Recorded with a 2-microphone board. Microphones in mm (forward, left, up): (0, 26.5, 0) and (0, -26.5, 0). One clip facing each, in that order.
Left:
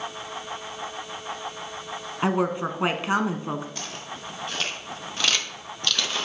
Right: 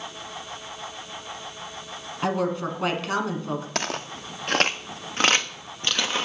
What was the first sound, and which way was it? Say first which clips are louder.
A woman speaking: left 1 dB; 25° left (ahead or behind).